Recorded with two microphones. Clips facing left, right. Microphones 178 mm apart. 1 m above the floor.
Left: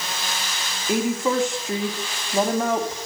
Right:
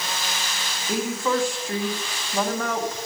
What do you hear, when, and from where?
0.9 s a woman speaking: 20° left (ahead or behind), 1.8 m